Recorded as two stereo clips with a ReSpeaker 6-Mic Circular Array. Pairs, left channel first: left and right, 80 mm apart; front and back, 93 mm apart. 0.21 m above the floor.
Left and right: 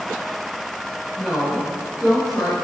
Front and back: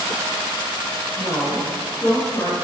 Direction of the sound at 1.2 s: 5° left.